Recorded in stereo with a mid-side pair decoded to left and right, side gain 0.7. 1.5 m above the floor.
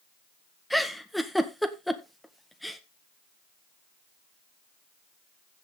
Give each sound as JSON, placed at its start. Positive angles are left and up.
{"t": 0.7, "sound": "a giggle", "azimuth_deg": 0, "distance_m": 1.7}